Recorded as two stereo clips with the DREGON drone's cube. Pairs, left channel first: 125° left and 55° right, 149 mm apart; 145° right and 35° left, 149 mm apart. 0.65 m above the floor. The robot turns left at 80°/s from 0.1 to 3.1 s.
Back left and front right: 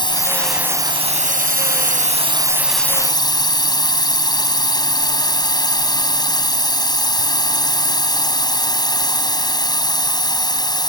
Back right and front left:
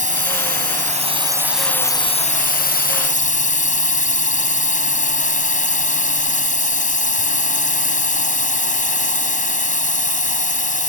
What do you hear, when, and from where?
0.0 s a drone: 65° left; by 10.9 s 175° right